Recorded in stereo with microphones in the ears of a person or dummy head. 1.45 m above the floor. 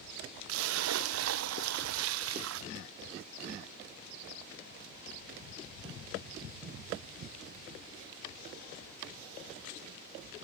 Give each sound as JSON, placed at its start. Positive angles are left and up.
{"t": 0.5, "sound": "a splash", "side_deg": -80, "distance_m": 0.6}